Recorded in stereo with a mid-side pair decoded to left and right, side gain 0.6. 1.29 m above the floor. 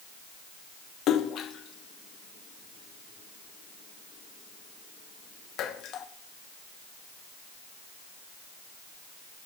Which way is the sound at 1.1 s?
55° left.